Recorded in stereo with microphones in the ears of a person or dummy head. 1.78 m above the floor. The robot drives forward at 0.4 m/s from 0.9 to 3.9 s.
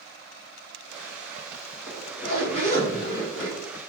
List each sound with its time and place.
1.9 s a zipper: 55° left (ahead or behind), 1.5 m; by 3.6 s 40° left (ahead or behind), 2.0 m